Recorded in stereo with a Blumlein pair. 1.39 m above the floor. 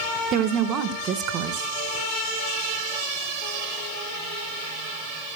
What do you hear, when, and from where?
0.3 s a woman speaking: 35° right, 1.5 m